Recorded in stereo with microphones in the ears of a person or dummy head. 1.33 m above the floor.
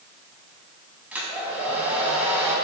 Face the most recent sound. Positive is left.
turn(degrees=-10)  # may be behind; listen again after turning